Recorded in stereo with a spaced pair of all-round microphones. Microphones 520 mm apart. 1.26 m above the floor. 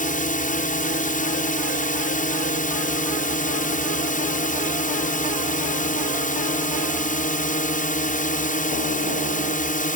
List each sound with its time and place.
0.0 s a drone: 15° left (ahead or behind)